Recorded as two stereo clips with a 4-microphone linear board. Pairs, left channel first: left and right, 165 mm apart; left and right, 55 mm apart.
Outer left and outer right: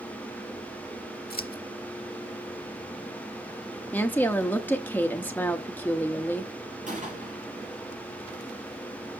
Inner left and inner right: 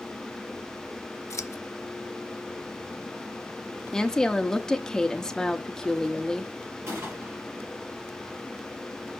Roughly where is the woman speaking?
Centre.